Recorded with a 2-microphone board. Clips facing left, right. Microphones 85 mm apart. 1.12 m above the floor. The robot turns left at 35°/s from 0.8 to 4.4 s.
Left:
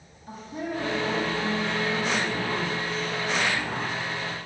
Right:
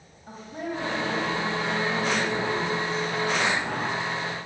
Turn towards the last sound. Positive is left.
turn(degrees=-165)